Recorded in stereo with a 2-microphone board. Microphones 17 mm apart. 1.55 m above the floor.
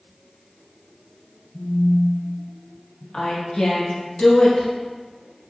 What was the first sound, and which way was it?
A phone buzzing, centre (ahead or behind).